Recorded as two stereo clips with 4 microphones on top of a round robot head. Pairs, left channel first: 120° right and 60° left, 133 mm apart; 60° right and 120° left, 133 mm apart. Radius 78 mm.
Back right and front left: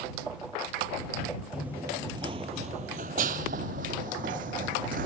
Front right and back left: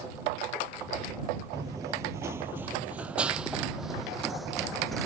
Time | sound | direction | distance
1.5 | running footsteps | 130° left | ?